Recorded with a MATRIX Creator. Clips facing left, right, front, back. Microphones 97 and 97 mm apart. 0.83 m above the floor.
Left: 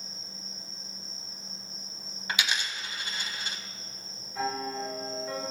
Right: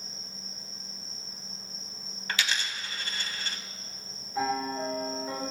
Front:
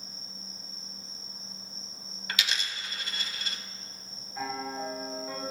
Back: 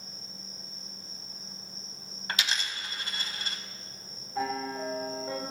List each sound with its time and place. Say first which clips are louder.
0.0 s an insect: even, even; 160° left, 2.5 m
2.3 s a dropped coin: even, back 1 dB; 155° left, 0.8 m
4.3 s a piano: right 3 dB, back 3 dB; 160° right, 2.5 m